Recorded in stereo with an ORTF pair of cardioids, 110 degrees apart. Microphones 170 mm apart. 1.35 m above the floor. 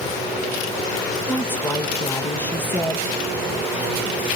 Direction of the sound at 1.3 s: 10° left.